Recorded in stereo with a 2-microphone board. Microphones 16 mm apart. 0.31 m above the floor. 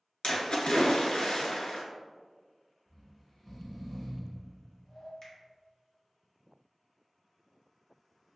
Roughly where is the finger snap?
Left.